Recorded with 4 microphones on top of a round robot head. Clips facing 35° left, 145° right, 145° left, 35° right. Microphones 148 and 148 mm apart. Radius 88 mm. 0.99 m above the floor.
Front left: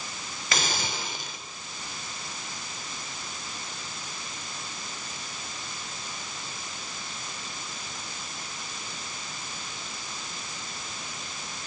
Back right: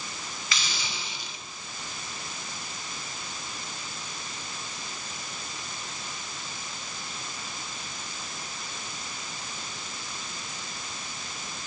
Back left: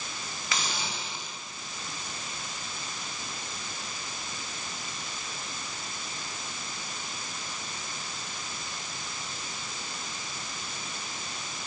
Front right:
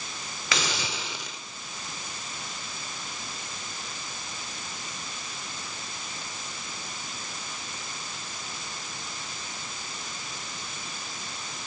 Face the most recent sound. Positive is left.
turn(degrees=-10)